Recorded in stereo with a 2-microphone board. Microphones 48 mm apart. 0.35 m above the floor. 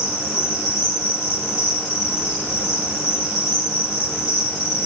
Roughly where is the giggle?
No giggle in this recording.